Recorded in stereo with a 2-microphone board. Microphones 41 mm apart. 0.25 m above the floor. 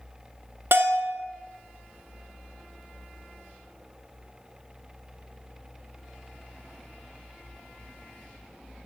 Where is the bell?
70° right (ahead or behind), 1.0 m.